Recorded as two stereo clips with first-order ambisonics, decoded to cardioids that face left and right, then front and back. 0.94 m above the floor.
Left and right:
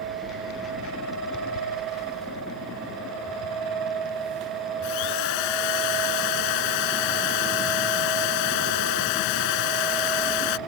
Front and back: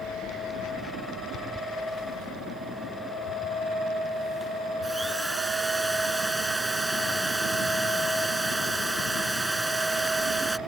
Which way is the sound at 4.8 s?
95° left.